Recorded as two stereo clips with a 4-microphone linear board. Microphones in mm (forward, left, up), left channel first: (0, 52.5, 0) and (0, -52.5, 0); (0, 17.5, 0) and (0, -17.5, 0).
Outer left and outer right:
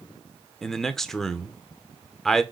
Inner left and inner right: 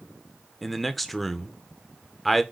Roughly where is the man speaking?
Centre.